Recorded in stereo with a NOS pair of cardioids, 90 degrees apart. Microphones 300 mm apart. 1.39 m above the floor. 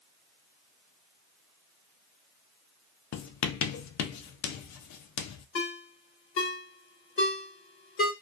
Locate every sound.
3.1 s writing: 70° left, 0.6 m
5.5 s a ringtone: 45° left, 1.4 m